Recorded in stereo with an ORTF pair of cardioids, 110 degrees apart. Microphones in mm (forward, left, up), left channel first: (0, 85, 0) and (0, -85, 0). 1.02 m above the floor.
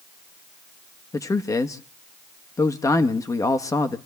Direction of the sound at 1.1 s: 20° left.